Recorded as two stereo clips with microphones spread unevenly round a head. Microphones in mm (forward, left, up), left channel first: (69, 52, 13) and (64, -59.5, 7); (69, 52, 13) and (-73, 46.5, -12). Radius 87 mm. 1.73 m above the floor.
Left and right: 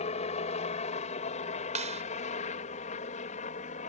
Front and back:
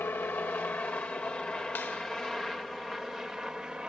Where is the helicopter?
80° left; by 3.9 s 100° left.